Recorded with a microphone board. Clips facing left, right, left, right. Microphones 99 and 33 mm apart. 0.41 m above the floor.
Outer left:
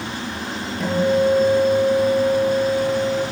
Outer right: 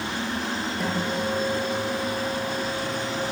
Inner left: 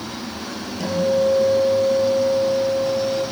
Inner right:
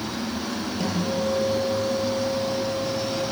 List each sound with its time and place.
0.8 s a guitar: 5° right (ahead or behind), 8.5 m